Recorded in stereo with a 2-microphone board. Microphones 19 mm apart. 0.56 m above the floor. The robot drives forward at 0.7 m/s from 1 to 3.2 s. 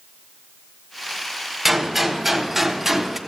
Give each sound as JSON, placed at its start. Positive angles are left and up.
{"t": 1.6, "sound": "a gunshot", "side_deg": -10, "distance_m": 2.0}